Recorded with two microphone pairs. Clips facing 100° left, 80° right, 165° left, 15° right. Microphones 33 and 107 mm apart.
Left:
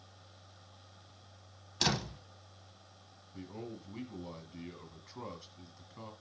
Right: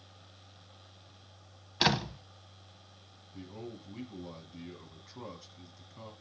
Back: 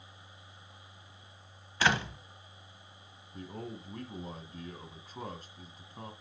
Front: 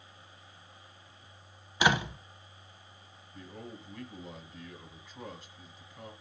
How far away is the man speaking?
About 1.7 m.